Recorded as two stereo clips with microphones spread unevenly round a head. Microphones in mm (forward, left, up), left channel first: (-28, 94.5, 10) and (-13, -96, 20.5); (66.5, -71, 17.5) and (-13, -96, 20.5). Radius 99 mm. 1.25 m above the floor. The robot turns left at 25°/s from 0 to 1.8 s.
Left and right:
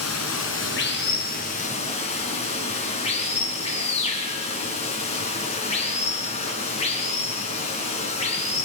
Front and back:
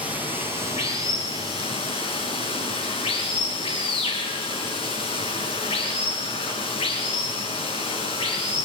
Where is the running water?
80° left, 3 m; by 8.7 s 35° left, 3 m.